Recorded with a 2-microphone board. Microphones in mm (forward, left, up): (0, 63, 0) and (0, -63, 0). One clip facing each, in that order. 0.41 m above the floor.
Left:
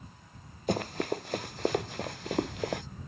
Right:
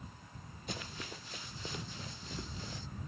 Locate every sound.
0.7 s running footsteps: 55° left (ahead or behind); by 2.8 s 70° left (ahead or behind)